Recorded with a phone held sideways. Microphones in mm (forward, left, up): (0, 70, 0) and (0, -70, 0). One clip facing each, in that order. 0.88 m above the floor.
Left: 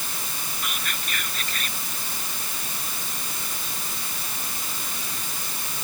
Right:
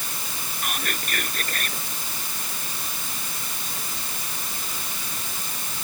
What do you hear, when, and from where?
0.6 s whispering: 50° right (ahead or behind)